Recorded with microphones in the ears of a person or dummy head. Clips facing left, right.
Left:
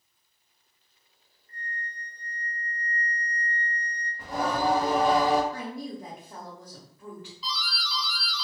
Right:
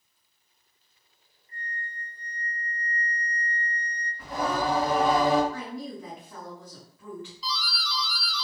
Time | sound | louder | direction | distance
1.5 | a flute | even | 10° right (ahead or behind) | 0.8 m
4.2 | singing | left 1 dB | 20° left (ahead or behind) | 1.0 m
5.5 | a woman speaking | even | 30° left (ahead or behind) | 1.1 m
7.4 | a doorbell | right 2 dB | 25° right (ahead or behind) | 0.8 m